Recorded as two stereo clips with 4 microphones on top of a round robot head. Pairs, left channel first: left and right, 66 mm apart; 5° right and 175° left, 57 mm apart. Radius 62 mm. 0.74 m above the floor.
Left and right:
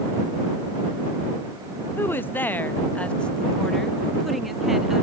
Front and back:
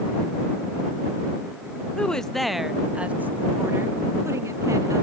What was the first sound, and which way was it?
A woman speaking, 60° left.